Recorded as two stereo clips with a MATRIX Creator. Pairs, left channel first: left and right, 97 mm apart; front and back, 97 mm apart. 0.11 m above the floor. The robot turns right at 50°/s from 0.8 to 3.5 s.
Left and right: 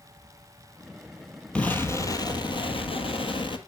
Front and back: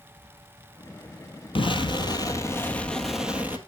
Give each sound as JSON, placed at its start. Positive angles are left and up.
{"t": 1.6, "sound": "an explosion", "azimuth_deg": 10, "distance_m": 1.6}